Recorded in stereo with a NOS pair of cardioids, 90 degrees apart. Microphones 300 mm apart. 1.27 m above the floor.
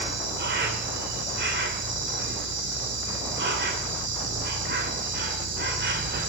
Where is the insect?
40° right, 2.5 m.